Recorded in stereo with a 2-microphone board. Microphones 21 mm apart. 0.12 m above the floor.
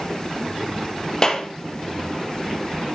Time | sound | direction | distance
1.2 | a clap | 30° left (ahead or behind) | 2.5 m